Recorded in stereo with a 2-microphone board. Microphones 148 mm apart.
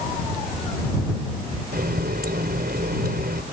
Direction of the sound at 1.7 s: 85° right.